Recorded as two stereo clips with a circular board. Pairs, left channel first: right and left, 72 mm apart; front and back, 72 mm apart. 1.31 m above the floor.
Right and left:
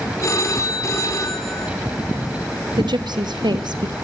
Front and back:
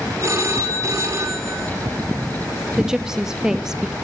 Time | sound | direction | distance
0.2 | a phone ringing | 135° right | 3 m
2.8 | a woman speaking | 100° left | 1.0 m